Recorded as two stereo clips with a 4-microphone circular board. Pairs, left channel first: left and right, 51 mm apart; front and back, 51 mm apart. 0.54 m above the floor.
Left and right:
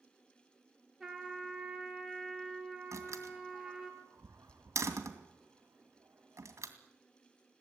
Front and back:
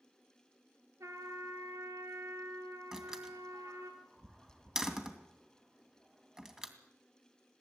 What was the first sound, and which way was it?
A trumpet, 175° right.